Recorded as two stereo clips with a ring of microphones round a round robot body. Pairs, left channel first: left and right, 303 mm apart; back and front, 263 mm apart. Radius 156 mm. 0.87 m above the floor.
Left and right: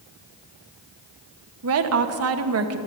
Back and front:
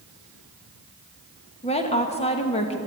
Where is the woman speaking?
115° right, 1.2 m.